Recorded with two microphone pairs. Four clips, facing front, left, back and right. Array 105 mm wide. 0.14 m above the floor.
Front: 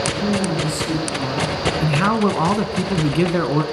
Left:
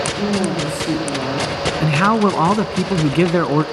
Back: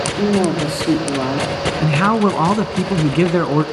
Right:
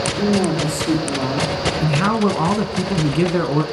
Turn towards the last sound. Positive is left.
turn(degrees=110)